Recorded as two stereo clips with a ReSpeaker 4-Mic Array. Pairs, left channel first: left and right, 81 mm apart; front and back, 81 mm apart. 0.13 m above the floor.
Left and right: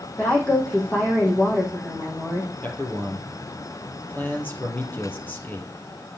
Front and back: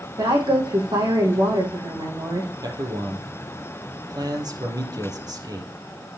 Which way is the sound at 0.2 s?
160° left.